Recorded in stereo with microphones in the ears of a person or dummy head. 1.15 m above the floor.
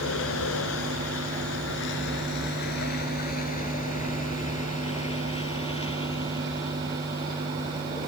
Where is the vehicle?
80° left; by 8.1 s 20° left (ahead or behind).